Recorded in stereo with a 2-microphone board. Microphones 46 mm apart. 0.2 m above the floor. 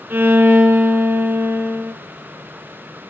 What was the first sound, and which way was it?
A violin, 60° right (ahead or behind).